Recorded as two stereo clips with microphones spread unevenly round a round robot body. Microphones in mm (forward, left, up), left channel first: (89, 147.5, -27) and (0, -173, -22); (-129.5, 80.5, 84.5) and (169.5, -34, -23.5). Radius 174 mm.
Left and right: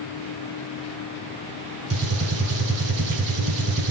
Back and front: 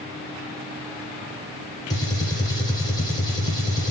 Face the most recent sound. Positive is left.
turn(degrees=-105)